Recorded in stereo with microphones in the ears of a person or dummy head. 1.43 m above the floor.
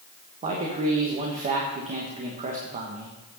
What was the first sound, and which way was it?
A man speaking, 30° right (ahead or behind).